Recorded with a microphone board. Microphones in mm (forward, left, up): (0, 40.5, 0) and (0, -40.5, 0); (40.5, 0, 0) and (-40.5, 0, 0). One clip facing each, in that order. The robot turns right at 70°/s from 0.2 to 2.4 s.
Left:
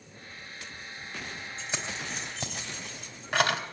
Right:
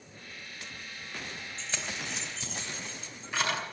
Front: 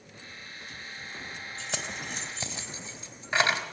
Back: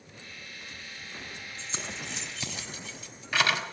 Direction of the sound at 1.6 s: 5° left.